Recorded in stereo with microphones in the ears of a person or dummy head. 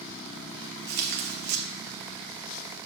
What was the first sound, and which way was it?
Tearing paper, 50° right (ahead or behind).